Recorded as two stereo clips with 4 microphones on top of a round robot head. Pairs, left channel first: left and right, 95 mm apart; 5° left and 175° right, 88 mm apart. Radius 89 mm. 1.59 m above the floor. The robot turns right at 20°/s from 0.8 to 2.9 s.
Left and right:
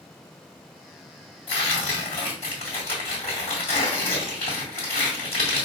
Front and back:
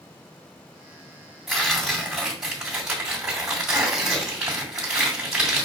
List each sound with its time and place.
1.5 s tearing paper: 90° left, 1.7 m; by 5.7 s 115° left, 1.7 m